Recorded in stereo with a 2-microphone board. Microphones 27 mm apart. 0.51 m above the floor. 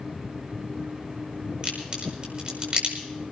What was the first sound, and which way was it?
A crack, 30° right (ahead or behind).